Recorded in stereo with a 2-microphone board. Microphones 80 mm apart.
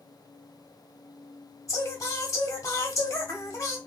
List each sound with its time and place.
1.7 s singing: 40° left (ahead or behind), 1.3 m